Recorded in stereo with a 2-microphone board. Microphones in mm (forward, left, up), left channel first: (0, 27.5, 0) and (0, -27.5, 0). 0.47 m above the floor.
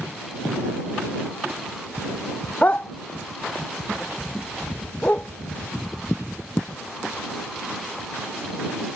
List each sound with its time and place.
2.6 s a dog barking: 30° left (ahead or behind); by 5.3 s 25° left (ahead or behind)